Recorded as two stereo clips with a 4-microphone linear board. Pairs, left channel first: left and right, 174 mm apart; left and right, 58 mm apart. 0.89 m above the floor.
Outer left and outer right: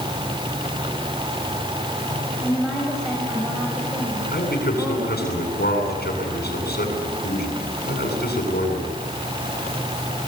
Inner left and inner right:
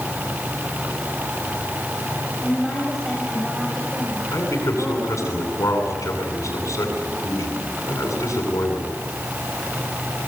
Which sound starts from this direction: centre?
A woman speaking, at 2.4 s.